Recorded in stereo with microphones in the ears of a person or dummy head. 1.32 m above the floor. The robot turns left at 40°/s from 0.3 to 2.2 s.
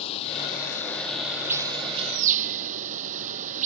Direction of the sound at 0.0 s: 35° left.